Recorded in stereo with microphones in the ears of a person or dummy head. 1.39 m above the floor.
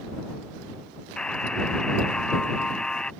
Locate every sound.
1.2 s a buzzer: 5° left (ahead or behind)